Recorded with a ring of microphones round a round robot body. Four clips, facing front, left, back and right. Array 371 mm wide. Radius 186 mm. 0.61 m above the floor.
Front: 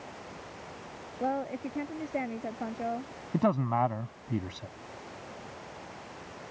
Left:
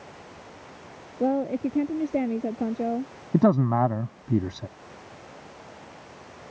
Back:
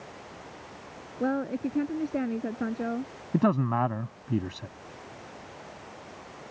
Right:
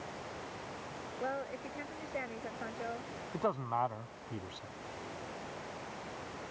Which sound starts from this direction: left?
A man speaking, at 3.3 s.